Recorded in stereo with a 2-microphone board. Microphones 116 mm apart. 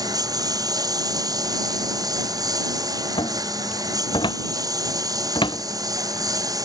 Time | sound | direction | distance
0.0 | a lawn mower | 30° right (ahead or behind) | ?
3.2 | a cupboard door | 40° left (ahead or behind) | ?